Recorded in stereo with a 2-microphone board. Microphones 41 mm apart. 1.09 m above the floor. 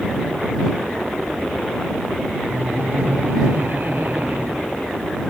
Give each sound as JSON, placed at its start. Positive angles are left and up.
{"t": 2.5, "sound": "laughter", "side_deg": -55}